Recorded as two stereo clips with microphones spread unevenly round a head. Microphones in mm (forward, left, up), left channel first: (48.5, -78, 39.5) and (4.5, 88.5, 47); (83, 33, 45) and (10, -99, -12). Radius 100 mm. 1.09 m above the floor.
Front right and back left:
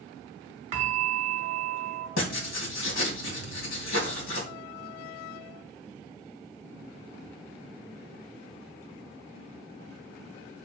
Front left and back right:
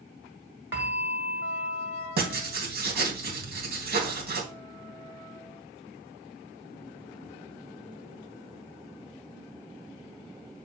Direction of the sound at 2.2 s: 95° right.